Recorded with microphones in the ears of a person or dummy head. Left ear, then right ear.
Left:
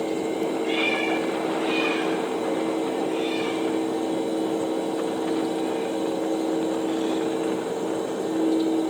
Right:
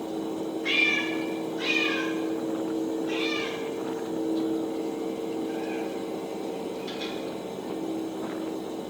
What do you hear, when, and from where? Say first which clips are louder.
0.6 s a cat meowing: right 2 dB; 70° right (ahead or behind), 5 m; by 7.1 s 60° right (ahead or behind), 7.5 m